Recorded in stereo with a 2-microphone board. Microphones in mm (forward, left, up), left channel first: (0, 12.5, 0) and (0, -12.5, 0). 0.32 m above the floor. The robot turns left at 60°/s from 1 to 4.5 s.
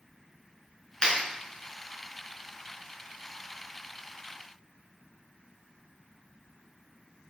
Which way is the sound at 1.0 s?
30° left (ahead or behind).